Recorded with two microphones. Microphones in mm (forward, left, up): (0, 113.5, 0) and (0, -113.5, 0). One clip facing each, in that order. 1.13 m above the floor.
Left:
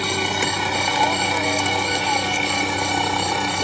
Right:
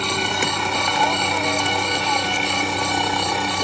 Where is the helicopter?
5° left (ahead or behind); by 3.6 s centre (ahead or behind).